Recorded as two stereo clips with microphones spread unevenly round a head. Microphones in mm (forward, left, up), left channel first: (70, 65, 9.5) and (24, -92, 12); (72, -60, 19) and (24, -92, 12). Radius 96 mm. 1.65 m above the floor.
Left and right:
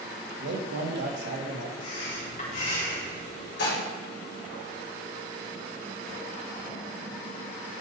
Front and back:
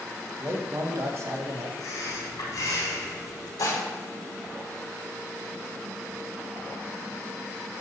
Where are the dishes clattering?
60° left, 3.5 m.